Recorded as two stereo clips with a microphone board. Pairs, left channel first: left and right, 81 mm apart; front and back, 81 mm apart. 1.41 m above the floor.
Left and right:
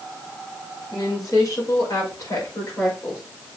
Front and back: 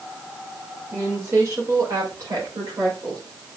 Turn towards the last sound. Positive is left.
turn(degrees=150)